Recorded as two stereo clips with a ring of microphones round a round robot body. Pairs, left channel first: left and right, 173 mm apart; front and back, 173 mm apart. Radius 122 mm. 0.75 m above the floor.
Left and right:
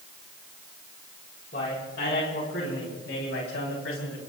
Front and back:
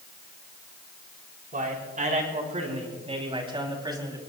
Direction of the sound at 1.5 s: 140° left.